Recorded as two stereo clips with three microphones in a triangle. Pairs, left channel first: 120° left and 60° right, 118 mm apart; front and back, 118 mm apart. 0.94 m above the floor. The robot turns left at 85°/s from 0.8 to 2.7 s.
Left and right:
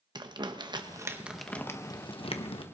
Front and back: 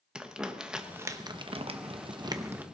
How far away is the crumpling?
About 0.9 m.